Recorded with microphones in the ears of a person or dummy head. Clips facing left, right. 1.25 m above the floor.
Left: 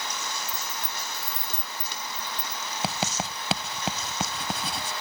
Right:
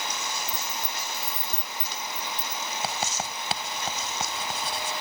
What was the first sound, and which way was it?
Keys jangling, 15° right (ahead or behind).